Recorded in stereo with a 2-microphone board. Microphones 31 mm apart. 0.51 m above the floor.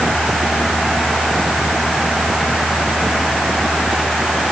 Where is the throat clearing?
No throat clearing in this recording.